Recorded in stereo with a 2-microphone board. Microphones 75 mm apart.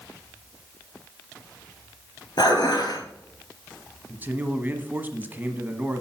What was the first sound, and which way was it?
Dishes clattering, 65° left (ahead or behind).